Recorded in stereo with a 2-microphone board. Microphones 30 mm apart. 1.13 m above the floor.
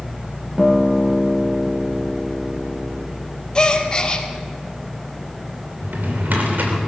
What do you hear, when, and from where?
0.6 s a guitar: 5° right (ahead or behind), 0.8 m
3.5 s a gasp: 30° left (ahead or behind), 1.3 m
5.8 s a drawer: 80° right, 3 m